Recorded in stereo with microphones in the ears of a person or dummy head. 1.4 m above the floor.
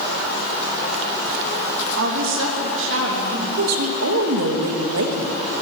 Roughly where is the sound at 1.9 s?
Right.